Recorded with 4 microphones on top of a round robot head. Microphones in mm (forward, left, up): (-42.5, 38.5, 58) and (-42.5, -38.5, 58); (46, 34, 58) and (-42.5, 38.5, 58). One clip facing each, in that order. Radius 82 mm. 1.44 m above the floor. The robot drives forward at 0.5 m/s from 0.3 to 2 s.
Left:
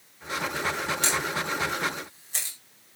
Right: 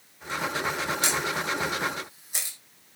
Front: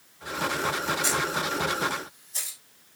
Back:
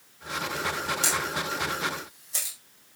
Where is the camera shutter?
165° right, 5 m.